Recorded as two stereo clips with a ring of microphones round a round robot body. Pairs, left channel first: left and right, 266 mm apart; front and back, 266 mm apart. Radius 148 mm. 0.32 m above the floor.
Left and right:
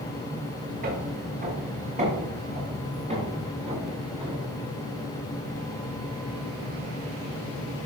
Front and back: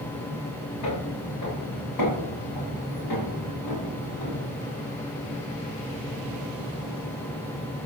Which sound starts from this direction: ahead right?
Footsteps, at 0.8 s.